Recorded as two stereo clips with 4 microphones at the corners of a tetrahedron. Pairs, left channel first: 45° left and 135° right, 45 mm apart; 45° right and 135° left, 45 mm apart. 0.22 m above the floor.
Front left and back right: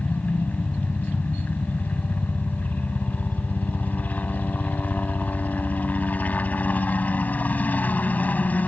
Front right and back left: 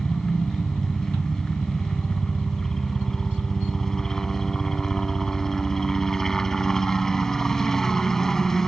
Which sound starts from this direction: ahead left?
A helicopter, at 0.0 s.